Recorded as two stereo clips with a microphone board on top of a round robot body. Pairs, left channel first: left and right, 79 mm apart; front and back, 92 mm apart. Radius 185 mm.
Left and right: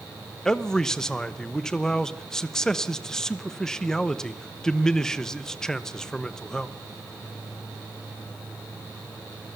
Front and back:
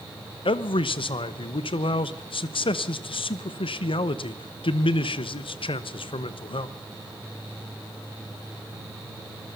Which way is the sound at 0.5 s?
10° left.